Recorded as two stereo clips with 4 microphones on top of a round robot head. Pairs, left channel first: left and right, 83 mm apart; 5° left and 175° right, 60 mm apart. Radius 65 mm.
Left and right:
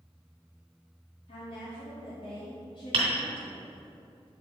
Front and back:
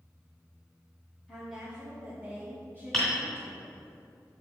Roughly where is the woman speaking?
Left.